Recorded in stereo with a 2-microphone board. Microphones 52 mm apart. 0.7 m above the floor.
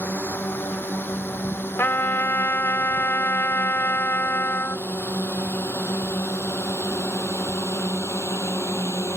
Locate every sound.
0.0 s a drone: 45° left (ahead or behind); by 9.2 s 70° left (ahead or behind)
1.8 s a trumpet: 55° left (ahead or behind)